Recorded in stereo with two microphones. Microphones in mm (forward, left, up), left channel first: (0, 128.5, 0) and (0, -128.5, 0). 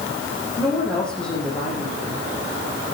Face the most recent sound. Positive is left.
turn(degrees=5)  # may be behind; listen again after turning